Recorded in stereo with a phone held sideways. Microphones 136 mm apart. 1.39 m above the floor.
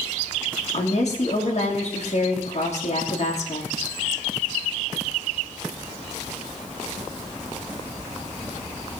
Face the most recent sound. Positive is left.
turn(degrees=50)  # may be behind; listen again after turning